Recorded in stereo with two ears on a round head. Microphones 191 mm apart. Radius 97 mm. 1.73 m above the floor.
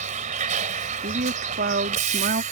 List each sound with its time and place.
0.0 s a vehicle: 35° right (ahead or behind)
1.0 s a woman speaking: 40° right (ahead or behind)